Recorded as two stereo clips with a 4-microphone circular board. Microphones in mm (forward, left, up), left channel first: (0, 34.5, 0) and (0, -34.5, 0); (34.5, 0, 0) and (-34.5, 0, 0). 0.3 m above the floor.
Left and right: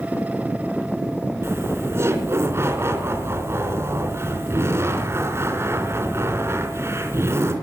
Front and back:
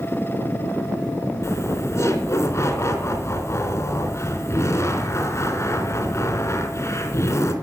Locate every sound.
1.4 s laughter: 45° right, 3 m